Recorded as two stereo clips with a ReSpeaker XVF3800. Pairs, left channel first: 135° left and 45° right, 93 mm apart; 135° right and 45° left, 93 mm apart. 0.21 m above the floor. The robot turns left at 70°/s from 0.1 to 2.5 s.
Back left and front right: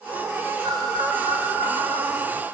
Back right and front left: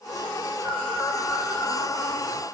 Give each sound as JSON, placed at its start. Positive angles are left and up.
{"t": 0.6, "sound": "a bird", "azimuth_deg": 0, "distance_m": 1.3}